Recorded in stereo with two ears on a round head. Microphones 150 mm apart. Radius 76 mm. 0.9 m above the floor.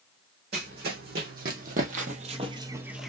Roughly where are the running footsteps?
Right.